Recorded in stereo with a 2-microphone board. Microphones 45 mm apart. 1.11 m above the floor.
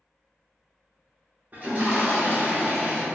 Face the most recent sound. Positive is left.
turn(degrees=-35)  # may be behind; listen again after turning